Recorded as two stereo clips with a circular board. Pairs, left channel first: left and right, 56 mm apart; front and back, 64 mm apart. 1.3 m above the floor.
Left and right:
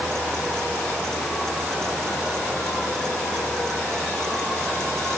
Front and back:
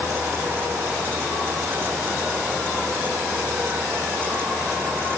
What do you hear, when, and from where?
Only background noise.